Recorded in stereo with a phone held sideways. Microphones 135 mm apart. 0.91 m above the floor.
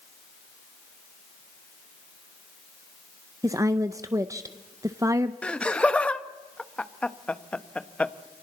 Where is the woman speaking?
25° right (ahead or behind), 0.6 m.